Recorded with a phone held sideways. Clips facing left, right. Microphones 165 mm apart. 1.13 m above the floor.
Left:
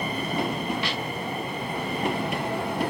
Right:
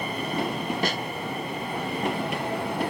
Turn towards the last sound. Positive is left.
turn(degrees=-45)  # may be behind; listen again after turning